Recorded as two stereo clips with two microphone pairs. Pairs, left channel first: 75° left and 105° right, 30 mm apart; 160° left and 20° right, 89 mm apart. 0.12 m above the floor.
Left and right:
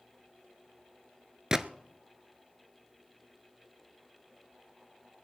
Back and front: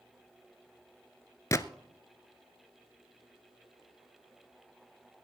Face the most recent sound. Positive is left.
turn(degrees=-160)